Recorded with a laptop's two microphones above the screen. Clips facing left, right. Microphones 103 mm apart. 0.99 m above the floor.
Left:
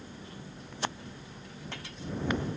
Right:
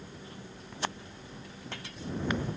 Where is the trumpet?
I don't hear a trumpet.